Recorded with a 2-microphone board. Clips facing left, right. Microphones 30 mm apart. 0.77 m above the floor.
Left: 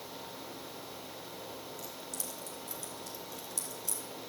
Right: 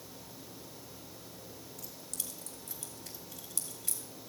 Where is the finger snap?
No finger snap in this recording.